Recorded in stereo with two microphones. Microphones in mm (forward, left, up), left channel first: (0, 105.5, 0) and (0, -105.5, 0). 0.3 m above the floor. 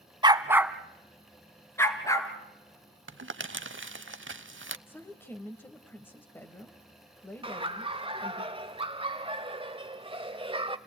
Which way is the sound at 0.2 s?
20° right (ahead or behind).